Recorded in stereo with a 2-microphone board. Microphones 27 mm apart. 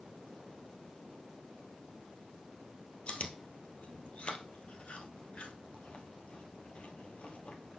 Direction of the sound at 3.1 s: 50° left (ahead or behind).